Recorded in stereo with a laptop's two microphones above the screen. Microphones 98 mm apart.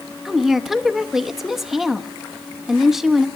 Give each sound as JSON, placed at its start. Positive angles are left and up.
{"t": 0.2, "sound": "a woman speaking", "side_deg": -5, "distance_m": 1.0}